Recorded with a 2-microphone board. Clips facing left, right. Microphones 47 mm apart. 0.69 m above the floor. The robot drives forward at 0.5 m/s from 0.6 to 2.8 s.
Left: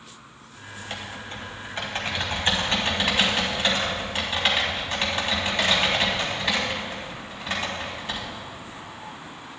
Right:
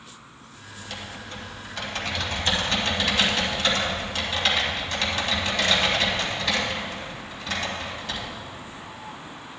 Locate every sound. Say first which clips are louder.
0.8 s typing on a keyboard: left 2 dB; 40° left (ahead or behind), 1.6 m; by 8.2 s 25° left (ahead or behind), 2.5 m